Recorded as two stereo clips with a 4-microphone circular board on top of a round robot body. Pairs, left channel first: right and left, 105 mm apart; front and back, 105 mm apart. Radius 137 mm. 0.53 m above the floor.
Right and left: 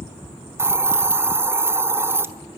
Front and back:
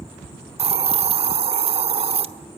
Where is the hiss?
160° left, 1.3 m.